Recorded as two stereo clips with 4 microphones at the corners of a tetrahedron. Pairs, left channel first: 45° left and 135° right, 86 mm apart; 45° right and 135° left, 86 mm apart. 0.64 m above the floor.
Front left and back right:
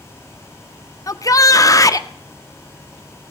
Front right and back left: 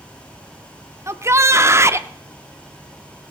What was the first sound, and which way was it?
A shout, 85° left.